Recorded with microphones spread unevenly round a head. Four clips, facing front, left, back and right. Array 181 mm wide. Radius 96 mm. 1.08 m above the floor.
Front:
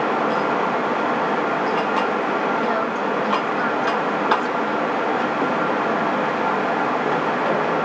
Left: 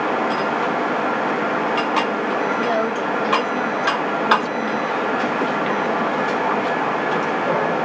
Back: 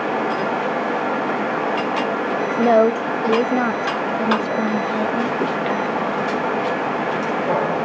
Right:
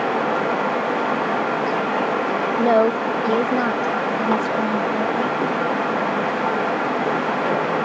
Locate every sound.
2.6 s a woman speaking: 155° right